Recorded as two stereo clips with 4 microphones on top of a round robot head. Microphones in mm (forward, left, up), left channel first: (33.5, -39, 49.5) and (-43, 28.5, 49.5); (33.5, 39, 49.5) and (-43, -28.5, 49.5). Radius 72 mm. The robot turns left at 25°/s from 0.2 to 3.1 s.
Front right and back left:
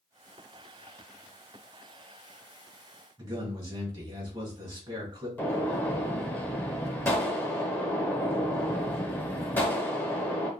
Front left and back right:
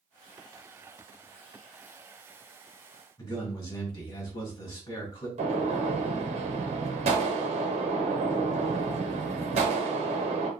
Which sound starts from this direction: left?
A man speaking, at 3.2 s.